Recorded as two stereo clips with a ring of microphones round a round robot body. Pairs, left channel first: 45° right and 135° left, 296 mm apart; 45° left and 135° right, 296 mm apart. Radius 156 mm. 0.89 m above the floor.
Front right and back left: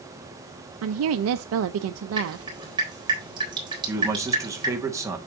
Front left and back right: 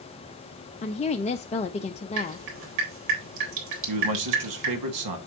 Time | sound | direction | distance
0.8 | a woman speaking | 110° left | 0.5 m
2.2 | dripping | 150° right | 3.5 m
3.9 | a man speaking | 145° right | 1.5 m